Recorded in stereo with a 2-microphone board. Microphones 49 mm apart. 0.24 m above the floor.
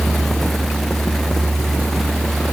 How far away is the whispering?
No whispering in this recording.